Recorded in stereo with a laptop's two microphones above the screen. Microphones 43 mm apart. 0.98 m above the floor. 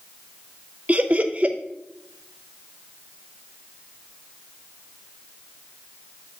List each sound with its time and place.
0.9 s laughter: 35° right (ahead or behind), 0.7 m